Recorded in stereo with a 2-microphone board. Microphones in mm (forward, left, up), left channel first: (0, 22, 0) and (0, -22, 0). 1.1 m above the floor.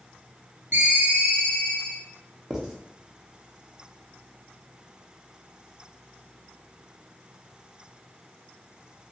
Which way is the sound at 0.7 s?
50° right (ahead or behind).